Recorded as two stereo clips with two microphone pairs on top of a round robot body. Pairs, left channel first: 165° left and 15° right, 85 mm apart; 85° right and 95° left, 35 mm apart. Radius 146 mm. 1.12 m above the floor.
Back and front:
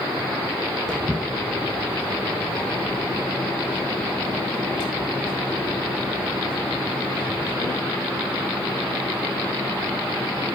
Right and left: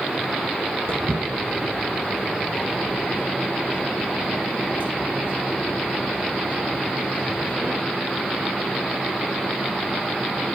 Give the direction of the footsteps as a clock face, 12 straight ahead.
9 o'clock.